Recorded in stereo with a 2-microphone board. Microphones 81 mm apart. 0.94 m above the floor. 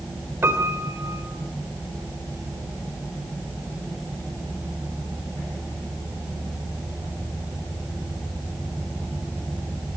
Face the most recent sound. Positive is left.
turn(degrees=-30)  # may be behind; listen again after turning